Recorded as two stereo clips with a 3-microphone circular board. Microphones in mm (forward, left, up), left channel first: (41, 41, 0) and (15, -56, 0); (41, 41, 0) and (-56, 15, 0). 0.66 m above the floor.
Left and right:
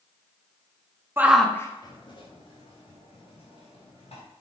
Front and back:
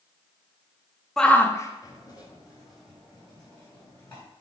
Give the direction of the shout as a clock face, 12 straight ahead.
2 o'clock.